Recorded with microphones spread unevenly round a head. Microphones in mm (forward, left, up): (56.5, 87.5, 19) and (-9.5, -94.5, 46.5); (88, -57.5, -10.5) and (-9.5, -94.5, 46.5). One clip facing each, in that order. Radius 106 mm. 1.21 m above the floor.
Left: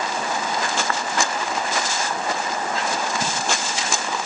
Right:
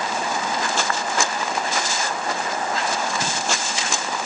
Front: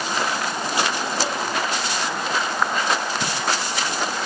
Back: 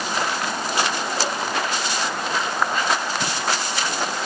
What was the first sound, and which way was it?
Only background noise.